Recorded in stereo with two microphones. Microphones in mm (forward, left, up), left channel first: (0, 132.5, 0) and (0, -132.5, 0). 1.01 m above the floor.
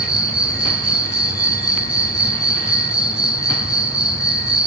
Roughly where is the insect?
Right.